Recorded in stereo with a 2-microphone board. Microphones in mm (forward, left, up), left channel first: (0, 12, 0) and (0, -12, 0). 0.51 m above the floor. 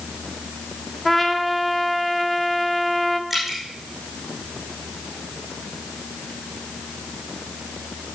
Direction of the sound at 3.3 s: 5° right (ahead or behind).